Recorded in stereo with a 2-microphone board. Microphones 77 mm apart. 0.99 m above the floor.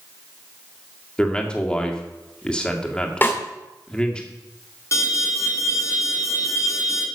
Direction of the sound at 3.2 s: 30° left (ahead or behind).